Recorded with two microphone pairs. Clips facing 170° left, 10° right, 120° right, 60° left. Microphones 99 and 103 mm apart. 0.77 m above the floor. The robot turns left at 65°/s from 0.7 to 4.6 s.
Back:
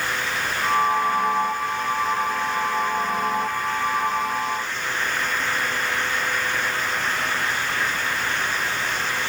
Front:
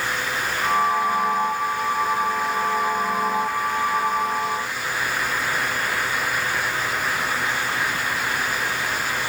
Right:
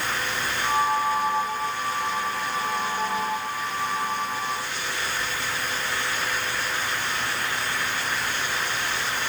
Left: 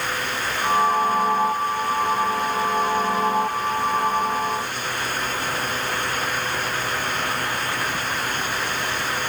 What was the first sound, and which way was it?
Only background noise.